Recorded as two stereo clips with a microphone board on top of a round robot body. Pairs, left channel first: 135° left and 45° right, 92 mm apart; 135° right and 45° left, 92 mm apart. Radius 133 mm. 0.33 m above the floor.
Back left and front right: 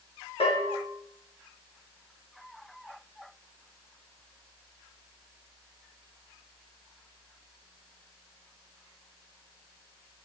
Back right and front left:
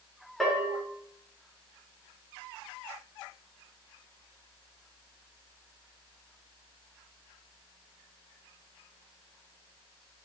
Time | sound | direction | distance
0.4 | a bell | 135° left | 3 m